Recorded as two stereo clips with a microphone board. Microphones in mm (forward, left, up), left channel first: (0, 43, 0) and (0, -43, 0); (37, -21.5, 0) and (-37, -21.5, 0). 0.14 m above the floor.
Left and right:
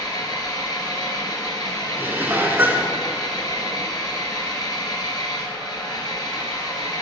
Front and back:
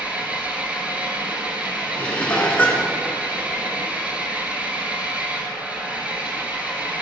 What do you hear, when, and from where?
0.0 s an engine running: 115° left, 1.4 m
2.0 s dishes clattering: 50° right, 0.9 m